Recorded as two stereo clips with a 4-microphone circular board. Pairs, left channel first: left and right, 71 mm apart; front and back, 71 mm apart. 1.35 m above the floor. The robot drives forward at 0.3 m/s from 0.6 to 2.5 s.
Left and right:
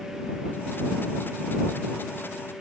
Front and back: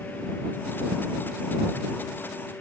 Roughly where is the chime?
I don't hear a chime.